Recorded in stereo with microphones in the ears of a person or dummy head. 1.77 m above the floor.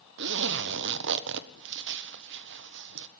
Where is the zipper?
65° right (ahead or behind), 1.5 m.